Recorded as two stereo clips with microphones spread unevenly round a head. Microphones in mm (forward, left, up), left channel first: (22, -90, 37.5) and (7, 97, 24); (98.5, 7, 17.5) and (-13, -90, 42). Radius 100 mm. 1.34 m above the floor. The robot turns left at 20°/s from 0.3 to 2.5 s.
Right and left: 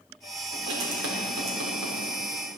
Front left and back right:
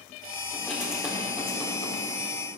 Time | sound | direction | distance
0.5 | writing | 130° left | 4.5 m